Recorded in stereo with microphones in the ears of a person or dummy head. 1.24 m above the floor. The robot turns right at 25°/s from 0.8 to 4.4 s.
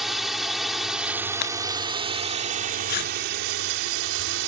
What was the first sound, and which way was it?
A drone, 175° right.